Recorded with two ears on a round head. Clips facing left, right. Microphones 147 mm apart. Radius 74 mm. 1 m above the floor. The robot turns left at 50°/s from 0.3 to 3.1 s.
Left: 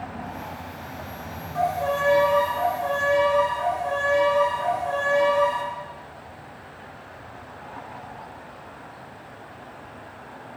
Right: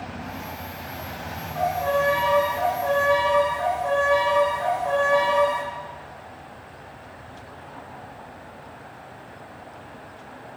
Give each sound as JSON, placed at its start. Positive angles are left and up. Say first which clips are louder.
{"t": 1.6, "sound": "a violin", "louder": "right 1 dB", "azimuth_deg": 30, "distance_m": 2.5}